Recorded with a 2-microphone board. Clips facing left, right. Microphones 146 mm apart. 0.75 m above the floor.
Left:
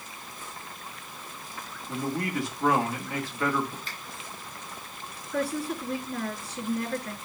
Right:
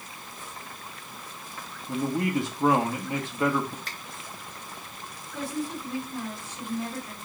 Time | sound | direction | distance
1.9 | a man speaking | 20° right (ahead or behind) | 1.5 m
3.9 | a finger snap | 75° right (ahead or behind) | 3.5 m
5.3 | a woman speaking | 75° left (ahead or behind) | 2.5 m